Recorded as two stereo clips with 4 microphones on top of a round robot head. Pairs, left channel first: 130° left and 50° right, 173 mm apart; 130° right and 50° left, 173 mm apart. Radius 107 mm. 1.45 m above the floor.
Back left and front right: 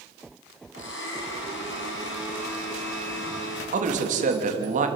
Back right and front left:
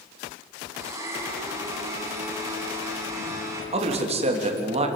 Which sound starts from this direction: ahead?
A man speaking, at 3.7 s.